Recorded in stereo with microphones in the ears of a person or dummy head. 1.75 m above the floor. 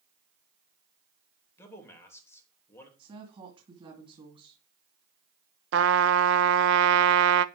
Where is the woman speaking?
35° right (ahead or behind), 2.5 m.